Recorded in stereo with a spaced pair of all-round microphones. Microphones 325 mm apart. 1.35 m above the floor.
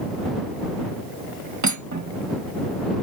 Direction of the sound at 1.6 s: 60° right (ahead or behind).